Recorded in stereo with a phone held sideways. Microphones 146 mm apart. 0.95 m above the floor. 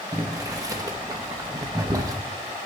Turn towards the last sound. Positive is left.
turn(degrees=-25)  # may be behind; listen again after turning